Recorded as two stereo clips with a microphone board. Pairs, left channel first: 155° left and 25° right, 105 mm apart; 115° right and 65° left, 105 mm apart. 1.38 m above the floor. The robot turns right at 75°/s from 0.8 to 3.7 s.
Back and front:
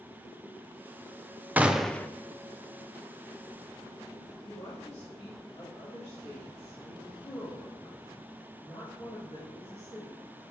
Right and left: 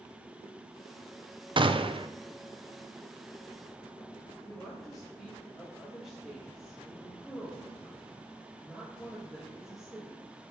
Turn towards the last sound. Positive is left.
turn(degrees=155)